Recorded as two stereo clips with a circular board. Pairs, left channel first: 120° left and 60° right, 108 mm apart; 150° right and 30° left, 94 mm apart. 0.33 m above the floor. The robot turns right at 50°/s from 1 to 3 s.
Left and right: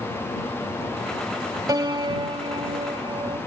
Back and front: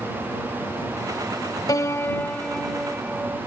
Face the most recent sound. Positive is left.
turn(degrees=-45)